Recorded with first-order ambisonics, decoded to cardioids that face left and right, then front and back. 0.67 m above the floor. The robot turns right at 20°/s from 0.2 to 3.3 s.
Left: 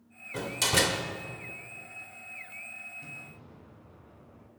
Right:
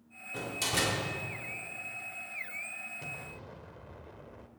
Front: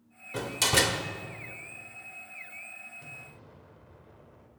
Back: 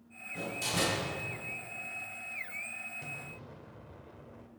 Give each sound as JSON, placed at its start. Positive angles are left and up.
{"t": 0.3, "sound": "a door slam", "azimuth_deg": 15, "distance_m": 1.3}
{"t": 3.0, "sound": "an explosion", "azimuth_deg": -110, "distance_m": 1.3}